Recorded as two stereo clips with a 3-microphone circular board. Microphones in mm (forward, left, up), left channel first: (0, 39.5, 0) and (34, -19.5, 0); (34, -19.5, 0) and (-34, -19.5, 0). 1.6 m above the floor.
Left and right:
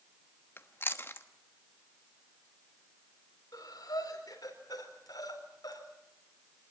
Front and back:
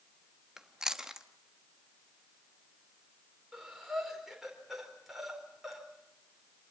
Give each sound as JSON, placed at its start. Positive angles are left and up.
{"t": 0.6, "sound": "chewing", "azimuth_deg": 105, "distance_m": 1.1}
{"t": 3.5, "sound": "breathing", "azimuth_deg": 95, "distance_m": 4.5}